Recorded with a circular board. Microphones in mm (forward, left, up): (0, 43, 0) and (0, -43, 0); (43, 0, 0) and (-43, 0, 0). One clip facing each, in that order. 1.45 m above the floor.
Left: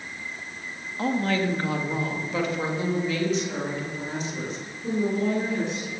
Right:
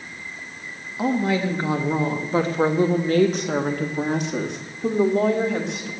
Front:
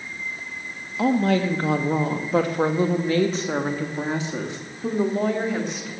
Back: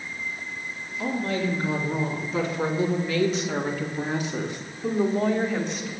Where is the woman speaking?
10° right, 1.9 m; by 5.9 s 85° right, 3 m.